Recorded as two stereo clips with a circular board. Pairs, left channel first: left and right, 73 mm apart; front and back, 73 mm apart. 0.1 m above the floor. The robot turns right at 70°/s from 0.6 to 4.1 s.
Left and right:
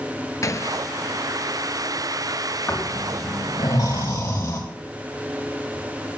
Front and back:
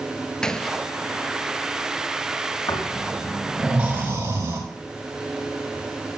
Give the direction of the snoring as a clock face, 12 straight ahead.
11 o'clock.